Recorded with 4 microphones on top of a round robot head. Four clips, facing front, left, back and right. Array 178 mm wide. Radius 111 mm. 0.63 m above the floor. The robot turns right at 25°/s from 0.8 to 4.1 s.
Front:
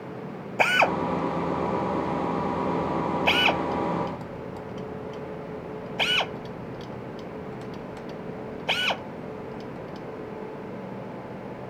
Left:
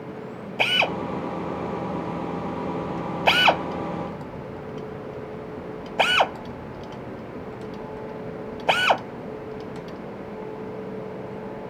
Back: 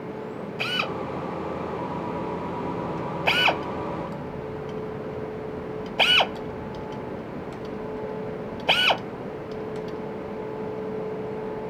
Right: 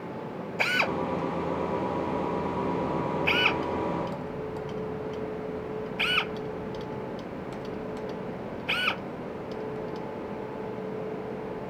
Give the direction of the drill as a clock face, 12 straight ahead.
11 o'clock.